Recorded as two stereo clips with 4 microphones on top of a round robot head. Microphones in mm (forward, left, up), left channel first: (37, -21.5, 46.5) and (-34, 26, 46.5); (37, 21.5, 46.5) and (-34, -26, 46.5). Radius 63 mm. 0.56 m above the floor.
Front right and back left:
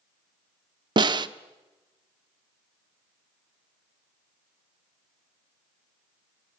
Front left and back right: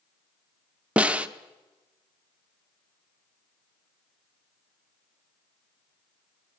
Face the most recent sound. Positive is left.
turn(degrees=140)